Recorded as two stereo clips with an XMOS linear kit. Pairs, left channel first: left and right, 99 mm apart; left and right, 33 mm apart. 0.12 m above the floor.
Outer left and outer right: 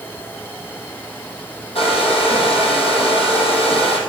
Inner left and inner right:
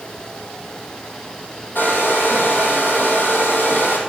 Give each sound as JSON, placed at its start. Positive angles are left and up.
{"t": 1.8, "sound": "a hair dryer", "side_deg": 75, "distance_m": 2.5}